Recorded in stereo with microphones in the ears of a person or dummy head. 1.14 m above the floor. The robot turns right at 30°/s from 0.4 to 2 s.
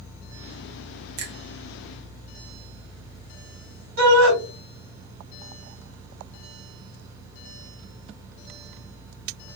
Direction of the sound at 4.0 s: 65° right (ahead or behind).